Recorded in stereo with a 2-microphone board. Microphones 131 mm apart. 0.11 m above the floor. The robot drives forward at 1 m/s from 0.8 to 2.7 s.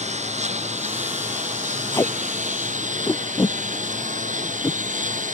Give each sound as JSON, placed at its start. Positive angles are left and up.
{"t": 0.0, "sound": "a lawn mower", "side_deg": -60}
{"t": 1.9, "sound": "tape being pulled", "side_deg": 25}